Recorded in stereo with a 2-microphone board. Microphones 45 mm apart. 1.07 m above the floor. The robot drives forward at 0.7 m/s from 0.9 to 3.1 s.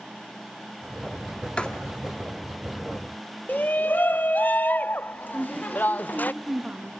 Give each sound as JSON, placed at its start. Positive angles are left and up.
{"t": 1.6, "sound": "writing", "side_deg": 25, "distance_m": 2.0}
{"t": 3.5, "sound": "a shout", "side_deg": 45, "distance_m": 0.6}
{"t": 5.3, "sound": "a woman speaking", "side_deg": -25, "distance_m": 1.6}